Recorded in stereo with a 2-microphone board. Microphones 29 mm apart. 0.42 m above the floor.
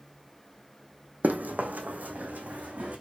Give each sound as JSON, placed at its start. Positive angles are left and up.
{"t": 1.2, "sound": "running footsteps", "side_deg": -75, "distance_m": 1.5}